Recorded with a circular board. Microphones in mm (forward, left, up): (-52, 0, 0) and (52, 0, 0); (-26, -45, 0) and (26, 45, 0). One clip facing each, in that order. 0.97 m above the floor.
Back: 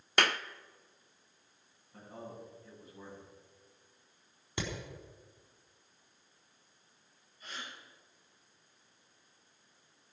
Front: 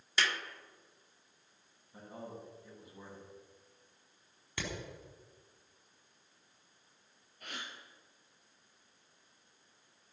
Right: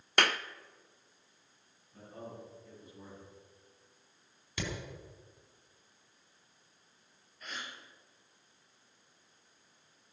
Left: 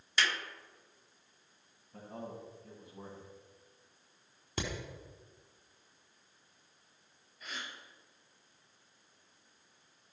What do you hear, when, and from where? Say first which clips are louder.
0.2 s a clap: back 5 dB, right 4 dB; 150° right, 0.6 m
1.9 s a man speaking: even, left 2 dB; 80° left, 7 m
4.6 s hammering: back 3 dB, left 1 dB; 110° left, 4 m
7.4 s a gasp: even, even; 25° right, 4.5 m